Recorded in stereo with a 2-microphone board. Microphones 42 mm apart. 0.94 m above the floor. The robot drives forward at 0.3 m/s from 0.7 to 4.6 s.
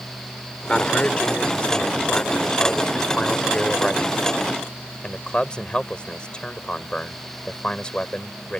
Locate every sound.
0.7 s a man speaking: 30° left (ahead or behind); by 8.6 s 25° left (ahead or behind)